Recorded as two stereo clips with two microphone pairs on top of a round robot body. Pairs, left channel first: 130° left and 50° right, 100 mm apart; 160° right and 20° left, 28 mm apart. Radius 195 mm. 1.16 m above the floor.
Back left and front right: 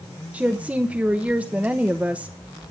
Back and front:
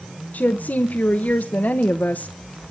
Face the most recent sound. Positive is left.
turn(degrees=-130)